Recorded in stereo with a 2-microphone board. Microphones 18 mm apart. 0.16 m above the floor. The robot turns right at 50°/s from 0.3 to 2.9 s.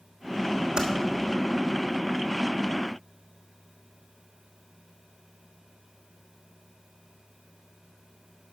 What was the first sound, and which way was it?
Typing on a keyboard, 55° right (ahead or behind).